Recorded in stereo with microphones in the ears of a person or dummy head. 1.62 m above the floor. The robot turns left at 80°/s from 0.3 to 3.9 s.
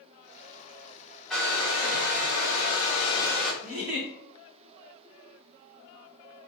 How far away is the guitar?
I don't hear a guitar.